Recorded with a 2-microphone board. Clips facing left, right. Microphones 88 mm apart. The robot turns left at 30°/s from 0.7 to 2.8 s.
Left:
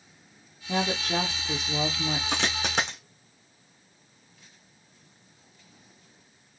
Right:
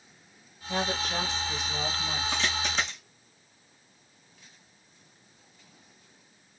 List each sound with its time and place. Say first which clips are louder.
0.7 s a woman speaking: left 3 dB; 130° left, 2.5 m; by 2.2 s 85° left, 2.5 m
2.3 s a dropped coin: left 1 dB; 80° left, 3.5 m; by 3.0 s 70° left (ahead or behind), 3.5 m